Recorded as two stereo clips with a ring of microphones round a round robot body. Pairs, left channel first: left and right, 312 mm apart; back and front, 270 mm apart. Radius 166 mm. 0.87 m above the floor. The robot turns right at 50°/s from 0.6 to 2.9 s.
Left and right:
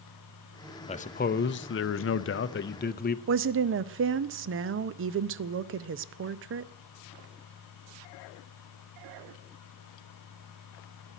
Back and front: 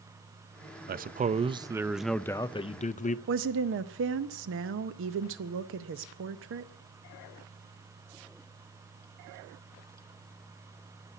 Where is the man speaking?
30° left, 0.5 m; by 3.2 s 130° left, 0.5 m.